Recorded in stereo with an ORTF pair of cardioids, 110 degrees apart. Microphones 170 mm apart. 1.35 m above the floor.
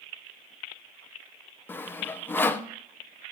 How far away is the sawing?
About 0.6 m.